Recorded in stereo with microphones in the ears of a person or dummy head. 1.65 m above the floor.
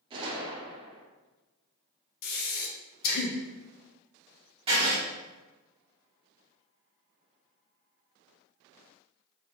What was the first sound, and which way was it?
A gunshot, 25° right (ahead or behind).